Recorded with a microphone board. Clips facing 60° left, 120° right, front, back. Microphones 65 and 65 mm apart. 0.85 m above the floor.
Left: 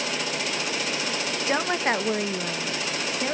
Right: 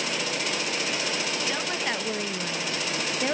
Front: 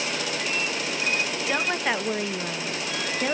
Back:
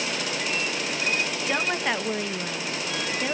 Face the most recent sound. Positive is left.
turn(degrees=-55)